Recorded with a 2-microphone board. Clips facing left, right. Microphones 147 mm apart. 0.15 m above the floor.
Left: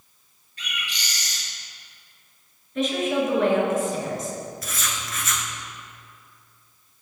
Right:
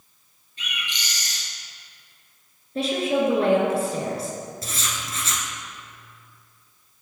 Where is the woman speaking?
35° right (ahead or behind), 2.0 m.